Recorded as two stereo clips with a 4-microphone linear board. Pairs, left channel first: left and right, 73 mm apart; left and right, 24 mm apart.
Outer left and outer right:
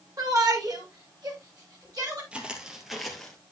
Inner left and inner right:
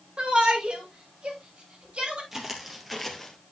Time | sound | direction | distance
0.2 | a shout | 60° right (ahead or behind) | 2.5 m
2.3 | footsteps | 15° right (ahead or behind) | 2 m